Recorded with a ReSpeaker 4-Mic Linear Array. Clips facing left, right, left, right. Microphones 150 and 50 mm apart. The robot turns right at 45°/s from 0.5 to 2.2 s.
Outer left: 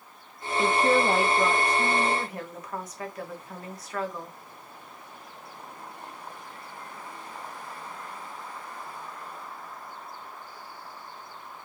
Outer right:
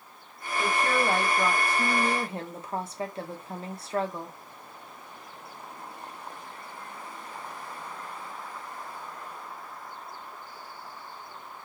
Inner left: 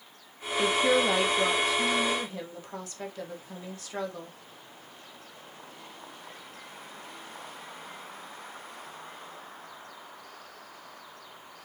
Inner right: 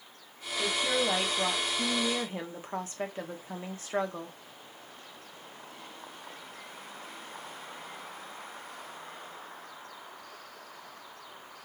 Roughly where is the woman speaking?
Behind left.